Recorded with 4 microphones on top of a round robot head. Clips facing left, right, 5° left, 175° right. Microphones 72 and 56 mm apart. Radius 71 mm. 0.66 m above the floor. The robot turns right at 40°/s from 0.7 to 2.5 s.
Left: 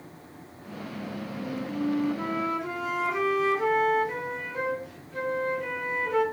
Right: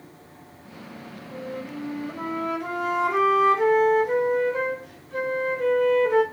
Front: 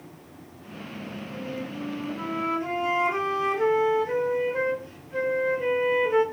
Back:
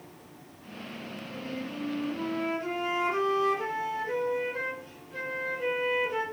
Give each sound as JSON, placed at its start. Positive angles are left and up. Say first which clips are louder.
{"t": 1.3, "sound": "a flute", "louder": "right 1 dB, front 2 dB", "azimuth_deg": -110, "distance_m": 4.0}